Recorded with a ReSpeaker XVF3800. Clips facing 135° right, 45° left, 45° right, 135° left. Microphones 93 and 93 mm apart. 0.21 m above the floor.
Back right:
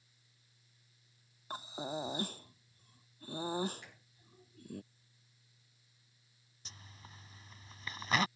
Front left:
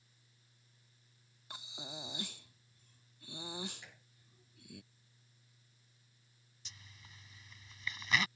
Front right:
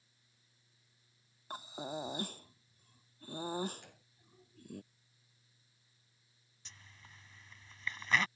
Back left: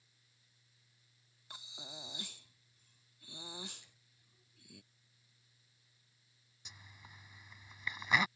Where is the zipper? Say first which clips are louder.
Back right 4 dB, back left 1 dB; 155° right.